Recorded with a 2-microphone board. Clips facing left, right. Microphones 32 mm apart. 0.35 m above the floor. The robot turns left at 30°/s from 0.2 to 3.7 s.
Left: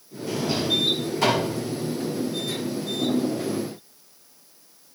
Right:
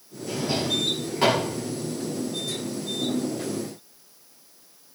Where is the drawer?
10° right (ahead or behind), 8 m; by 1.5 s 45° right (ahead or behind), 8 m.